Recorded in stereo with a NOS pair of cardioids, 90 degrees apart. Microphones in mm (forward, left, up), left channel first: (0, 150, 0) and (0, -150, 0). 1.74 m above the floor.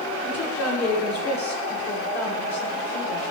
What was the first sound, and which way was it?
A woman speaking, 65° left.